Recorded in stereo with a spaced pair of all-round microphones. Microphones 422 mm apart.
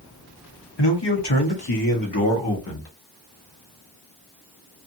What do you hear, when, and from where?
0.8 s a man speaking: 75° left (ahead or behind), 1.2 m; by 2.9 s 30° left (ahead or behind), 1.2 m